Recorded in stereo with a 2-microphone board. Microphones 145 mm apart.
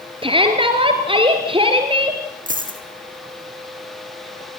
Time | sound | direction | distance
0.2 | a shout | 35° right (ahead or behind) | 2 m
2.5 | a dropped coin | 65° right (ahead or behind) | 3 m